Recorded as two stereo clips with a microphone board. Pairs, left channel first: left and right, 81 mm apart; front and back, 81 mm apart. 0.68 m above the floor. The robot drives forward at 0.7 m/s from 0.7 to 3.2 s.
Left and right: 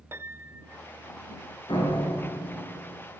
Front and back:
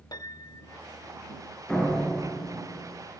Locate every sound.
0.1 s a piano: 35° right, 1.0 m
1.7 s a door slam: 80° left, 8.5 m; by 3.0 s 85° left, 8.5 m